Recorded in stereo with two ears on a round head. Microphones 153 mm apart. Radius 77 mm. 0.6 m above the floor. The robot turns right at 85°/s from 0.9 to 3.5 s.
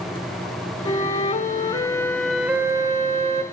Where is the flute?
60° left, 0.5 m; by 3.4 s 85° right, 0.5 m.